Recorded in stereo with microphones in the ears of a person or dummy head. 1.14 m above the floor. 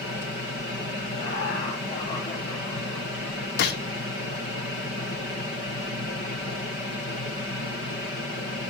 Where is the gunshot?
50° left (ahead or behind), 0.7 m.